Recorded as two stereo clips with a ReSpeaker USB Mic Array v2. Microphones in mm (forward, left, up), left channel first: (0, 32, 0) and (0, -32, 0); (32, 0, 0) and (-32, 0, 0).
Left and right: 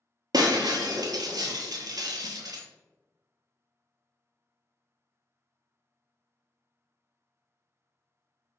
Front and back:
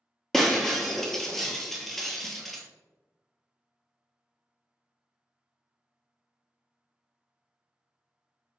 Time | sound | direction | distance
0.3 | breaking glass | 85° right | 0.8 m